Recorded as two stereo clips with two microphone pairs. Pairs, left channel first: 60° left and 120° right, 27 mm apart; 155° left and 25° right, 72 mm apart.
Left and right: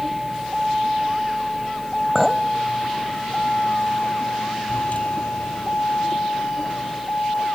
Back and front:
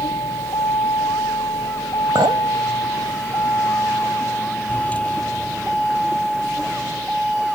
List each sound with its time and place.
0.0 s a vehicle: 160° left; by 7.5 s 65° left
2.1 s a clink: 35° right